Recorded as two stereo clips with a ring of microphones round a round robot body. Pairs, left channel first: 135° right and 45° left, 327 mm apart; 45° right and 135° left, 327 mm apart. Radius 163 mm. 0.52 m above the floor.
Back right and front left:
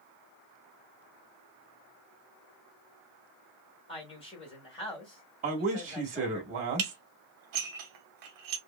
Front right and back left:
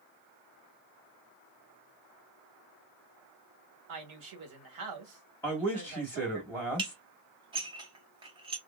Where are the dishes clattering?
60° left, 0.8 m.